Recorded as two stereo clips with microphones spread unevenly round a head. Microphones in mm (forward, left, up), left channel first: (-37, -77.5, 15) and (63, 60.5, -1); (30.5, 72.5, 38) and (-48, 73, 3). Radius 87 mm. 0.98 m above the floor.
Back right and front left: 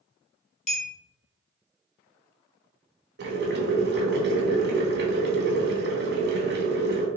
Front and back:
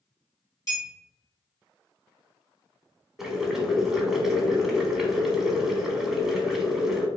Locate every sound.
0.7 s a clink: 75° right, 0.8 m
3.2 s boiling: 70° left, 0.8 m